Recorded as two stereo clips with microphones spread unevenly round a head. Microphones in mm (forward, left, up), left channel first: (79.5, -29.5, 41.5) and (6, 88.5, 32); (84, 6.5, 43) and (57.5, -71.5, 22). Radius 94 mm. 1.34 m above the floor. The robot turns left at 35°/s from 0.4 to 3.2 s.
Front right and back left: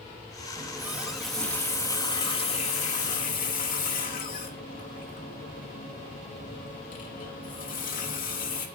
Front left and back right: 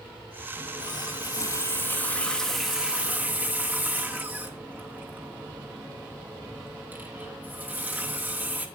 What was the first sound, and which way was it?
A running tap, 55° left.